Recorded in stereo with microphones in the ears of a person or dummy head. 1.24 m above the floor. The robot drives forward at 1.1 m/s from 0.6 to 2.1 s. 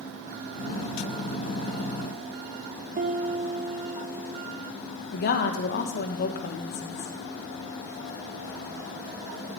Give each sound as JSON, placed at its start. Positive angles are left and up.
{"t": 3.0, "sound": "a piano", "side_deg": -50, "distance_m": 0.7}
{"t": 5.1, "sound": "a woman speaking", "side_deg": 45, "distance_m": 1.3}